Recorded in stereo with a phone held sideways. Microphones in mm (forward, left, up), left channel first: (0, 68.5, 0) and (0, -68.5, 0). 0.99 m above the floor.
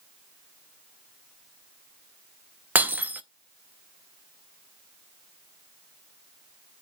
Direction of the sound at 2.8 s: 10° right (ahead or behind).